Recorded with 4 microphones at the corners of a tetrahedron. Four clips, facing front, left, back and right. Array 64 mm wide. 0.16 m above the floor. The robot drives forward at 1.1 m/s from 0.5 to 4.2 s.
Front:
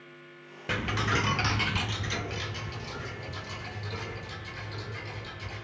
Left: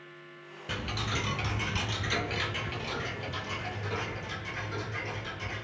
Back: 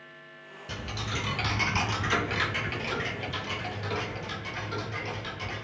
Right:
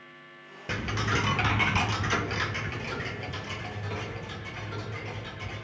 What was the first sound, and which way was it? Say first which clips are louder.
Ticking: right 5 dB, front 7 dB; 25° right.